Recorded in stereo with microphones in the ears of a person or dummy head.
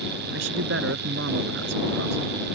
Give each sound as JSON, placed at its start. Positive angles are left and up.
{"t": 0.3, "sound": "a man speaking", "side_deg": -80}